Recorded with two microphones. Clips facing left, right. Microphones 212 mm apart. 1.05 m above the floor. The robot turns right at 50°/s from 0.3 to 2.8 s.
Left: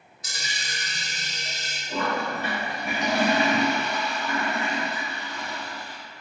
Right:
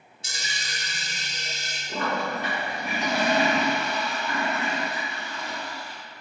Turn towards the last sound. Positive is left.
turn(degrees=0)